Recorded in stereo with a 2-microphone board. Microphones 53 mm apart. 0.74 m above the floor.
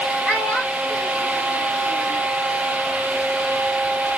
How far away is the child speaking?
About 2.0 m.